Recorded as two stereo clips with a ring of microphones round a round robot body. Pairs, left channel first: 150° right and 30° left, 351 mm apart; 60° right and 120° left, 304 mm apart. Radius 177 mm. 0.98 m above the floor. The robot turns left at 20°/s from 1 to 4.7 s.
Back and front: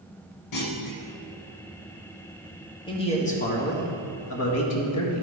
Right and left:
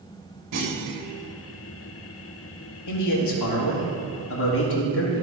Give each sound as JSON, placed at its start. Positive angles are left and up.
{"t": 0.5, "sound": "a clunk", "azimuth_deg": 170, "distance_m": 1.5}
{"t": 2.9, "sound": "a man speaking", "azimuth_deg": -75, "distance_m": 1.5}